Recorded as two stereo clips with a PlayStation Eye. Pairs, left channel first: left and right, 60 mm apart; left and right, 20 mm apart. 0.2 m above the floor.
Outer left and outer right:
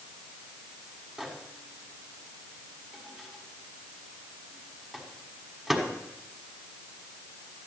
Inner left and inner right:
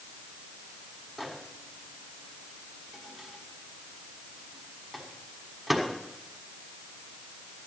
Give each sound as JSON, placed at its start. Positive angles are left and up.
{"t": 1.2, "sound": "a microwave", "side_deg": -5, "distance_m": 1.5}